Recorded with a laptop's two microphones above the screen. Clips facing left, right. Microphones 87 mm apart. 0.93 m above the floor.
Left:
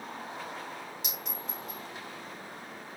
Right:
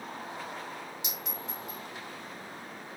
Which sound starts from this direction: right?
A clink, at 1.0 s.